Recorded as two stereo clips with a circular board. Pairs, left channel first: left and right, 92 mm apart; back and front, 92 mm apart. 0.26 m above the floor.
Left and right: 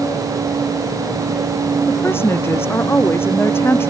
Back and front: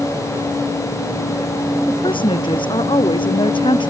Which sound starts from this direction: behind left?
A woman speaking, at 1.9 s.